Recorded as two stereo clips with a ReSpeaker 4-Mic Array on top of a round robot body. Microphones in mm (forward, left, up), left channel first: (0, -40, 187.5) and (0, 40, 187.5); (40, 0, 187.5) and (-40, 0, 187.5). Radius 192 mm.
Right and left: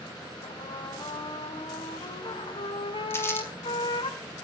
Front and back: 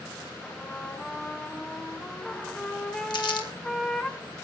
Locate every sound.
0.4 s a trumpet: 85° right, 1.9 m
3.1 s crumpling: 30° right, 2.5 m